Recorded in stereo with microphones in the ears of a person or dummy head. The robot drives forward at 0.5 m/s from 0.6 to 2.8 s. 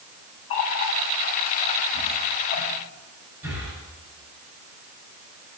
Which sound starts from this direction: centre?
Breathing, at 3.4 s.